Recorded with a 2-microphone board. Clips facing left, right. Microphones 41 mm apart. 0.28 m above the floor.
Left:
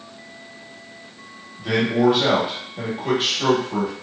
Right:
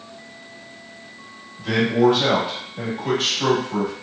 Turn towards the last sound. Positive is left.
turn(degrees=10)  # may be behind; listen again after turning